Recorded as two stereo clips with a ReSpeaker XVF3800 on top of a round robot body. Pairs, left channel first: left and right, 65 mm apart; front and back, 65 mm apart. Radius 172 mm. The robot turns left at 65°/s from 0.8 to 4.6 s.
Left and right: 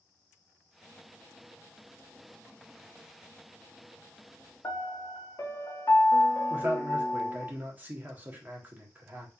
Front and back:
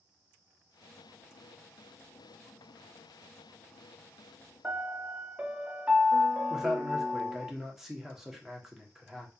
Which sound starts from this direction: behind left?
A piano, at 4.6 s.